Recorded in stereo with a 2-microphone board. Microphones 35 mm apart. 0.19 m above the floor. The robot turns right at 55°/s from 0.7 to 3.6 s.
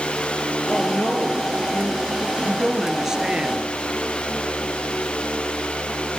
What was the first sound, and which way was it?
A woman speaking, 65° left.